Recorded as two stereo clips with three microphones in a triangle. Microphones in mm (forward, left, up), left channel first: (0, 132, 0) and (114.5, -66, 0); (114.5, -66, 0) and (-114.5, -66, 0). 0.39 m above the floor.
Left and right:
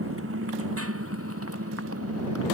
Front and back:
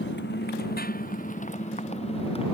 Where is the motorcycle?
40° right; by 2.5 s 65° right.